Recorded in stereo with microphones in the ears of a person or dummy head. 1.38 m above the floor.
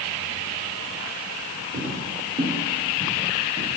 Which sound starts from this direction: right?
Footsteps, at 1.7 s.